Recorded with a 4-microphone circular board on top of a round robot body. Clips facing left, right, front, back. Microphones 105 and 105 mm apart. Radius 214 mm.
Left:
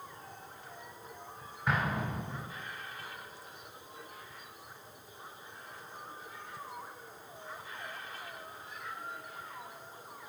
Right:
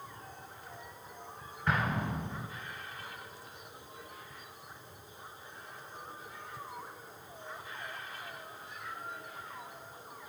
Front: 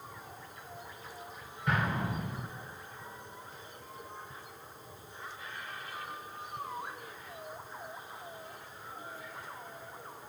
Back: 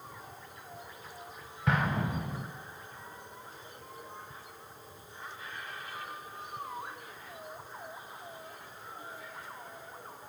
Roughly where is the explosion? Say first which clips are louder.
Even, back 2 dB; behind.